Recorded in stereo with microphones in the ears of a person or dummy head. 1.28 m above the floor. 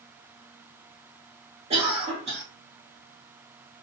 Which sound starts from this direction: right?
A cough, at 1.7 s.